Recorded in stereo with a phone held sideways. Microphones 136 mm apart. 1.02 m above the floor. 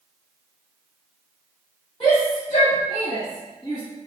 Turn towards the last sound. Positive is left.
turn(degrees=20)  # may be behind; listen again after turning